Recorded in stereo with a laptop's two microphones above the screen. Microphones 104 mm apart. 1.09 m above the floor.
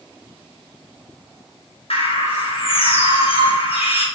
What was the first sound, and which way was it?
A bird, 70° left (ahead or behind).